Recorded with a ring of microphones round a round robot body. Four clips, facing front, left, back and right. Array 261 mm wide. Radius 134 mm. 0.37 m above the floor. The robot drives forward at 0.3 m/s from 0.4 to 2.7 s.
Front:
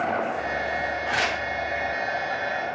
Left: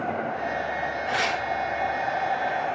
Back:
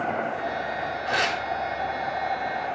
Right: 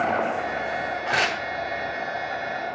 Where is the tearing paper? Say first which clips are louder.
Right 2 dB, back 3 dB; 80° right, 2.5 m.